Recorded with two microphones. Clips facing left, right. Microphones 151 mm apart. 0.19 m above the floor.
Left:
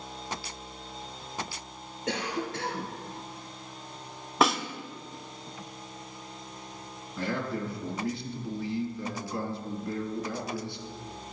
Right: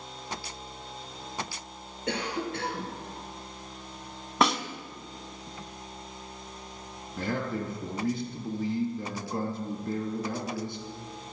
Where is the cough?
5° right (ahead or behind), 2.5 m.